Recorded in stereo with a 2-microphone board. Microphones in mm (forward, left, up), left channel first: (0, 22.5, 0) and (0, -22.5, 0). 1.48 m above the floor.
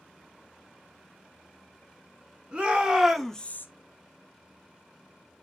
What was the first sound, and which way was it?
A shout, 25° right (ahead or behind).